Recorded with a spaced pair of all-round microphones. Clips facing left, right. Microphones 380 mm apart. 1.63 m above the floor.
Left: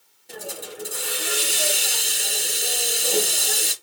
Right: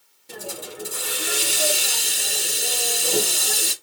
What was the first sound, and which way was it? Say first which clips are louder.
A hiss: even; 15° right (ahead or behind).